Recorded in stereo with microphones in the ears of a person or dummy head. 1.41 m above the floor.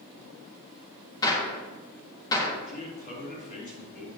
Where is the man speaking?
50° left (ahead or behind), 2.5 m.